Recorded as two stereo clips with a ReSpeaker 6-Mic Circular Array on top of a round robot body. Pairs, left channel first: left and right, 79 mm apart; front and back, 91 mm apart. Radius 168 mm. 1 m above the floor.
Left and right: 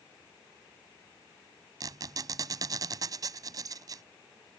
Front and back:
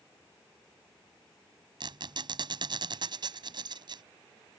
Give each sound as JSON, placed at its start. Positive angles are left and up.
{"t": 1.8, "sound": "a squeak", "azimuth_deg": -140}